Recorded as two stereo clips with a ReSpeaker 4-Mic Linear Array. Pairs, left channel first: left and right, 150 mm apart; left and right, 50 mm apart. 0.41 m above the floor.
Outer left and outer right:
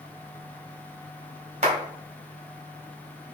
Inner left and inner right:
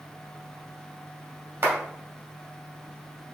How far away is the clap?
About 2 m.